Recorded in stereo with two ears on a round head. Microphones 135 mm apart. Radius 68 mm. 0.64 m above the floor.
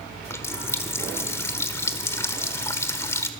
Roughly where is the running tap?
Centre.